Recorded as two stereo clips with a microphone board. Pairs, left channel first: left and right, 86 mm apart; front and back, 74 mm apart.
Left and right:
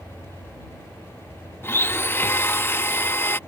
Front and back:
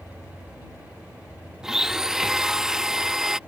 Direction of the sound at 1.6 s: 105° left.